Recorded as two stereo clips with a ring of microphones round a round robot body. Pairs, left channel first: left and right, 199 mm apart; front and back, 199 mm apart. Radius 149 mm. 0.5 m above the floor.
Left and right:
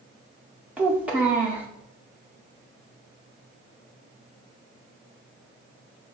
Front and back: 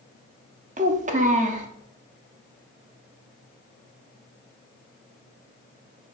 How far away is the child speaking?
About 0.6 m.